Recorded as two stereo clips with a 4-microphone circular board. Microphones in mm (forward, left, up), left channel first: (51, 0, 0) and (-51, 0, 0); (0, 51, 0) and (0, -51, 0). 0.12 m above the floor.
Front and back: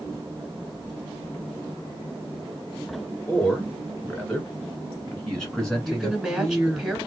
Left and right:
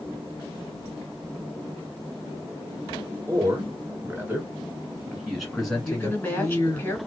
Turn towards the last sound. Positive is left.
turn(degrees=110)